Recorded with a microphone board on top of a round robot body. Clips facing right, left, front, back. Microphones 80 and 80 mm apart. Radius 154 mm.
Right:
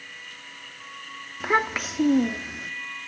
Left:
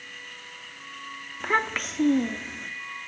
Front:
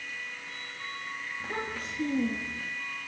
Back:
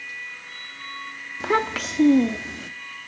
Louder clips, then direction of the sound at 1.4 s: Right 2 dB, back 15 dB; 175° right.